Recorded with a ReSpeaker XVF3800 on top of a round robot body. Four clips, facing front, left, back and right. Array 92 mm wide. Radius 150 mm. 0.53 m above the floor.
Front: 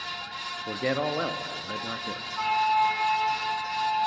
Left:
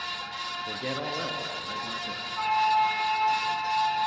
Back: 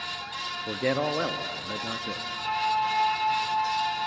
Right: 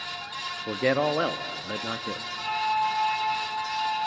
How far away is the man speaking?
About 1.1 m.